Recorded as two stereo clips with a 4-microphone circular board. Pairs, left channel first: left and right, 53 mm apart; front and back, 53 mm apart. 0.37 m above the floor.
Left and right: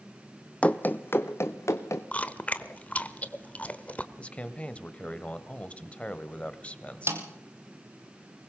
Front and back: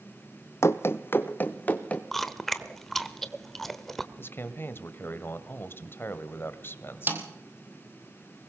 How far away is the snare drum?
About 2.5 m.